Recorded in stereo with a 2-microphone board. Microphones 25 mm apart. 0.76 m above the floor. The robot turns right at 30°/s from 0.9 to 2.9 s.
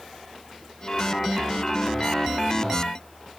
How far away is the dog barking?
I don't hear a dog barking.